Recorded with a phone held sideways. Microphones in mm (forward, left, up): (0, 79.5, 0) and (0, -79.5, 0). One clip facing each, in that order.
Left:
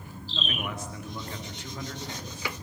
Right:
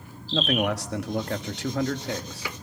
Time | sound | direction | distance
0.3 | a man speaking | 80° right | 1.7 m